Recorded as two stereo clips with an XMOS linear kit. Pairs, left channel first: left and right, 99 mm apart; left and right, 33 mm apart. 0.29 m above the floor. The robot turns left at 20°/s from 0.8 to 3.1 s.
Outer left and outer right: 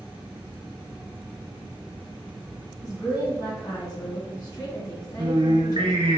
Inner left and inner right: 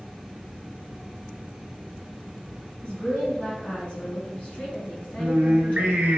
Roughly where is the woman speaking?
Left.